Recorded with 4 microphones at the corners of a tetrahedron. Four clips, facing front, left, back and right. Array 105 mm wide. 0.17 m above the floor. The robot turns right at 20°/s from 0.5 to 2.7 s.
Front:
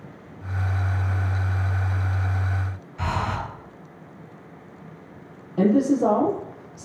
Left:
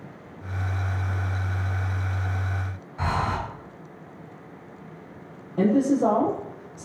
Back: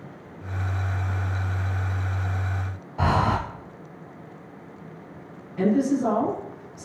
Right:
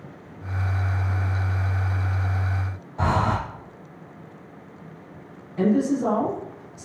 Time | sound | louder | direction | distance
3.0 | breathing | right 4 dB, back 5 dB | 150° right | 1.6 m
5.6 | a man speaking | left 1 dB, front 3 dB | 35° left | 5.5 m